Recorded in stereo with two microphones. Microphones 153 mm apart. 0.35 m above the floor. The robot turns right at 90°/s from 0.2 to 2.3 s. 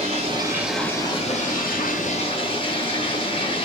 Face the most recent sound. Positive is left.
turn(degrees=140)